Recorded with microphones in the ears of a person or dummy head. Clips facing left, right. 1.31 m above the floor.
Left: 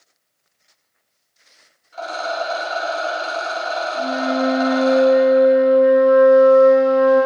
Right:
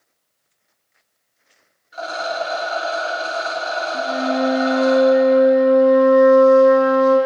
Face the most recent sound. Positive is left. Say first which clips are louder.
# even
turn(degrees=-65)  # may be behind; listen again after turning